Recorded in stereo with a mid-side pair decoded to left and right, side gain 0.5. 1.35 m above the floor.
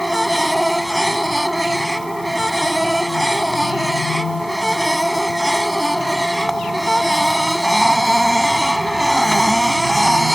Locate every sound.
0.0 s a machine running: 5° right